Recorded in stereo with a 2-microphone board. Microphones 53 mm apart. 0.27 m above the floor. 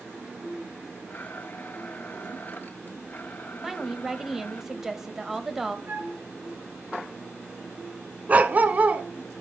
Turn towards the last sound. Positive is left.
turn(degrees=-30)  # may be behind; listen again after turning